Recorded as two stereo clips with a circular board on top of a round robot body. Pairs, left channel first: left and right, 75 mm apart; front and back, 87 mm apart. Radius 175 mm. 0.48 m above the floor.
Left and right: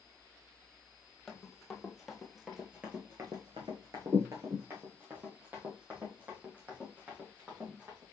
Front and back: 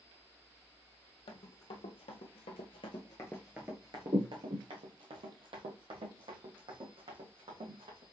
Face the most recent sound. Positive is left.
turn(degrees=-165)